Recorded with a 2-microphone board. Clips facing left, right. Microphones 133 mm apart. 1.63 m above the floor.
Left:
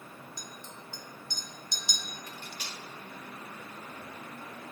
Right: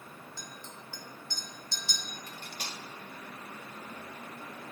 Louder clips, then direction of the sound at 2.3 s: Even; 45° right (ahead or behind).